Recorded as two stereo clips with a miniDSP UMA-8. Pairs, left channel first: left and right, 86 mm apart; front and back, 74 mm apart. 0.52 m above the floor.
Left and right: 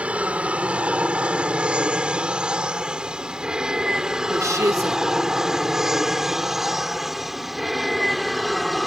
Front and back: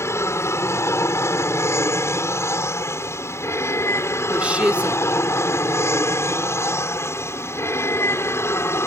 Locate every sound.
0.0 s an aircraft: 20° right; by 8.9 s straight ahead
4.3 s a woman speaking: 115° right